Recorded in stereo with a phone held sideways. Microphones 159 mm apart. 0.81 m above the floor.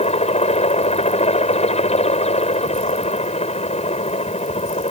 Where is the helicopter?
40° left (ahead or behind).